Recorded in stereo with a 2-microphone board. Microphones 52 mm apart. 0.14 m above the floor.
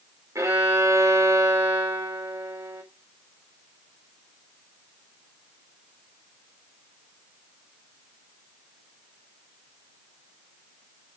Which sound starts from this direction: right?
A violin, at 0.3 s.